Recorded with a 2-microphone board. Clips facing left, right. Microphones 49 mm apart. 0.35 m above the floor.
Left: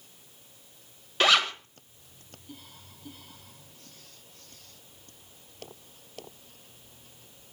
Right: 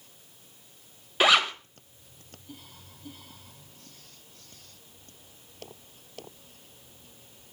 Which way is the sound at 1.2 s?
10° right (ahead or behind).